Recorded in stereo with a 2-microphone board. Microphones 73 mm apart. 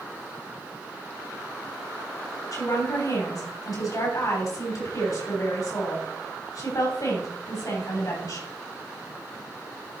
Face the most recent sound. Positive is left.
turn(degrees=55)  # may be behind; listen again after turning